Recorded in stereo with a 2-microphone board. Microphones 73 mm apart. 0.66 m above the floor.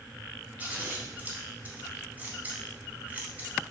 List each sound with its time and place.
0.6 s scissors: 20° right (ahead or behind), 0.8 m